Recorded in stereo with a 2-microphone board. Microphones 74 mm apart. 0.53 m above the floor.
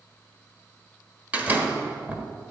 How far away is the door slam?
About 1.2 m.